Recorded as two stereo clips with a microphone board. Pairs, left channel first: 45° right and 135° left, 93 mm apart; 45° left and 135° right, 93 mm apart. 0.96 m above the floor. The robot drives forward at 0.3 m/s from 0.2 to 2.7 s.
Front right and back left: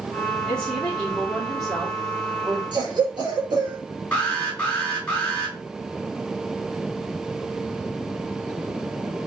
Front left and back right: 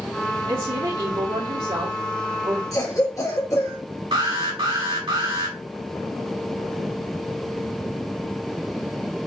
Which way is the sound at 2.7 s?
95° left.